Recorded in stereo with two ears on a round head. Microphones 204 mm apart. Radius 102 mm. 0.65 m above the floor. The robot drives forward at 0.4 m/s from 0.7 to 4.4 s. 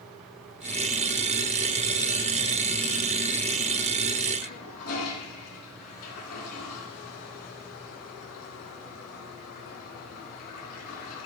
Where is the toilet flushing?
75° left (ahead or behind), 3.5 m.